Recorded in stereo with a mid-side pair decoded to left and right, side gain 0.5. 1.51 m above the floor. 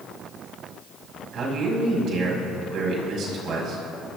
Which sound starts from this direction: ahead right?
A man speaking, at 1.3 s.